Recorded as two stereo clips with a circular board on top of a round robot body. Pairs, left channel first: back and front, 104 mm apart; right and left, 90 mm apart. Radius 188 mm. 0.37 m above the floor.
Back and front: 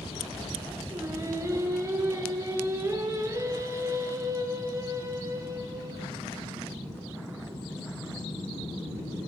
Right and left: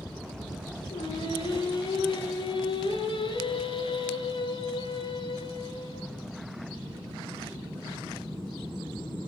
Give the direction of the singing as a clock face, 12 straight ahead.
2 o'clock.